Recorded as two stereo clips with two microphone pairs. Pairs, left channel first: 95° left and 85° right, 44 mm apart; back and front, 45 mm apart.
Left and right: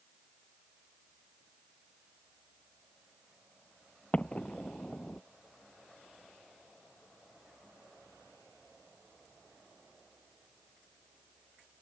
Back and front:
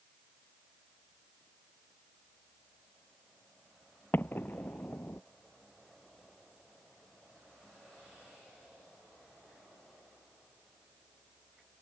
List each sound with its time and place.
4.1 s an explosion: 155° left